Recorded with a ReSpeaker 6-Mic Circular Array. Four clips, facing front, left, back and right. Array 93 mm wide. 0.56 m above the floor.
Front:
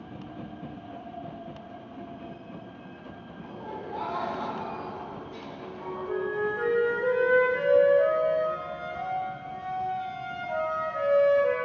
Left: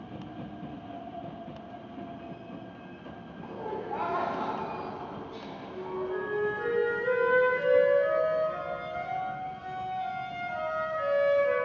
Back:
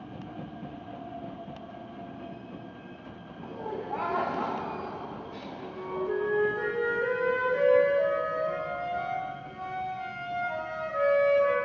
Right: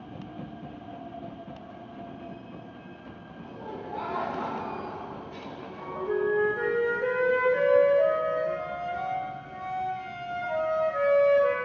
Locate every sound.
3.4 s laughter: 125° left, 1.8 m; by 6.1 s 100° right, 3 m
5.6 s a flute: 105° right, 3 m